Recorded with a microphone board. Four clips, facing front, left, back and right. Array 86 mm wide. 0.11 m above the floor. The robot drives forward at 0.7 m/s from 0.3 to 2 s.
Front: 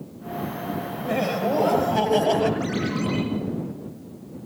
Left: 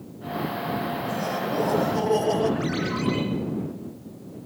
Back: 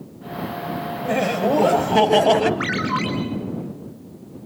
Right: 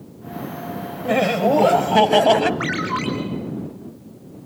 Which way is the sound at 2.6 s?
150° right.